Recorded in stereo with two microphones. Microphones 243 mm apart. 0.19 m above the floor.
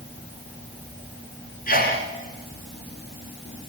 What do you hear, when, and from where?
1.7 s a sneeze: 35° left (ahead or behind), 2.5 m